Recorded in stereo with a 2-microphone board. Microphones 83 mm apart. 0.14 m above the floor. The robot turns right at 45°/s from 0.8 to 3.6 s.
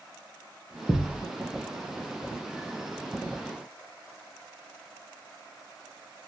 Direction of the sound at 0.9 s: 30° left (ahead or behind).